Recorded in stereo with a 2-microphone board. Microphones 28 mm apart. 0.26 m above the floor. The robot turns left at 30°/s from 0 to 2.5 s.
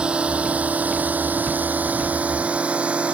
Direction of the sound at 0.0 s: 40° right (ahead or behind).